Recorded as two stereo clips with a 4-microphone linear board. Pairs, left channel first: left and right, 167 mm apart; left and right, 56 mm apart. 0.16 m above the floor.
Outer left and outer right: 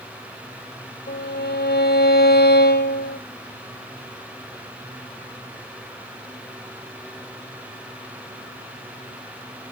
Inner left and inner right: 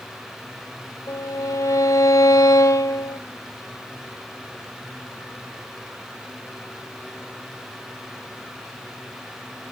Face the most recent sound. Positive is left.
turn(degrees=75)  # may be behind; listen again after turning